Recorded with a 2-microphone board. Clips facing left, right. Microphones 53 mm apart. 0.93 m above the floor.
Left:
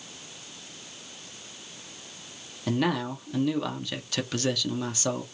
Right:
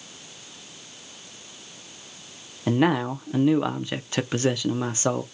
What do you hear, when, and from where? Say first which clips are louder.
2.7 s a man speaking: right 5 dB; 30° right (ahead or behind), 0.5 m